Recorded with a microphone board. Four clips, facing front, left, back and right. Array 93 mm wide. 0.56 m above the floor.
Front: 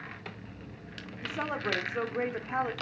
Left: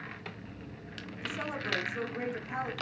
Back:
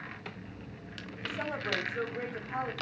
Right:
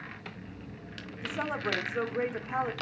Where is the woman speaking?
35° right, 1.4 m.